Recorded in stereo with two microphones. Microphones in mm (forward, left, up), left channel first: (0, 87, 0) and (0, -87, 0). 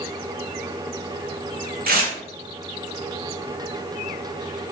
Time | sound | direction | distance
1.9 | tearing paper | 55° right (ahead or behind) | 0.7 m